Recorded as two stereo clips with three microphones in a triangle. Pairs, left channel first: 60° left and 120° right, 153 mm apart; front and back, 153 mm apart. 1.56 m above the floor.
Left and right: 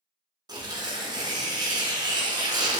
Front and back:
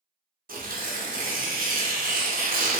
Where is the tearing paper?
Straight behind, 0.5 m.